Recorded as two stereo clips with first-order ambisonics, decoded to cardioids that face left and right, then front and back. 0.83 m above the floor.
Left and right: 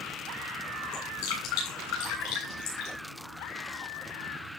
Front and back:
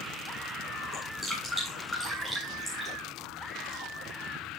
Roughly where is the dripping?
Left.